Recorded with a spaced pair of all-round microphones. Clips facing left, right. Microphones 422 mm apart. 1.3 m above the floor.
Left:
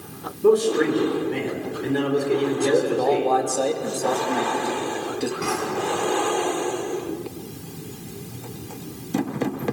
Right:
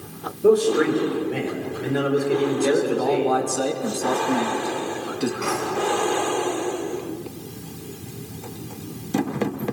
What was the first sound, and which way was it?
A man speaking, 10° left (ahead or behind).